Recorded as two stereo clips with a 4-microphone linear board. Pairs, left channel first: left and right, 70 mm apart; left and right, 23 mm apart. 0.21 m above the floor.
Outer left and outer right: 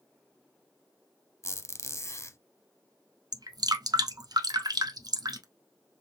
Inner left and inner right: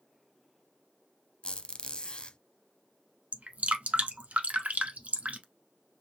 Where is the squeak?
40° left (ahead or behind), 0.6 m.